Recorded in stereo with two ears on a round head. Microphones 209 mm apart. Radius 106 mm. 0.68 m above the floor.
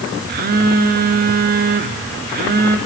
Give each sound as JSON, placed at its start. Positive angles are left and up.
{"t": 0.3, "sound": "a phone buzzing", "side_deg": -40, "distance_m": 1.6}